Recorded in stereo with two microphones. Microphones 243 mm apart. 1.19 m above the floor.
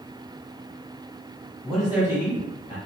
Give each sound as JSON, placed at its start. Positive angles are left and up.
{"t": 1.6, "sound": "a man speaking", "side_deg": 5, "distance_m": 0.7}